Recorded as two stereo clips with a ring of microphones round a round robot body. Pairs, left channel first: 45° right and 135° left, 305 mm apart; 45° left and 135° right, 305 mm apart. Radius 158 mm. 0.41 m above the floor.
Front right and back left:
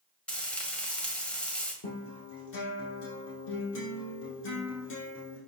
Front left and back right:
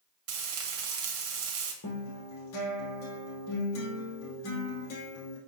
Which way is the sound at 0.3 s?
130° right.